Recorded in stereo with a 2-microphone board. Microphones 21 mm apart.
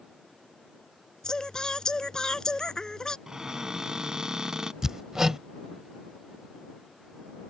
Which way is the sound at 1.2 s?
30° left (ahead or behind).